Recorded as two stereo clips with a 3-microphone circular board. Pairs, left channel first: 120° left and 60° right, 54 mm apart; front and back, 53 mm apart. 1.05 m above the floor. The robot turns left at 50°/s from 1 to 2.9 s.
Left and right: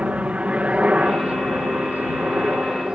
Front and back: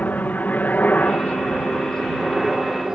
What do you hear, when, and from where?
0.0 s a helicopter: 15° right; by 3.0 s 110° right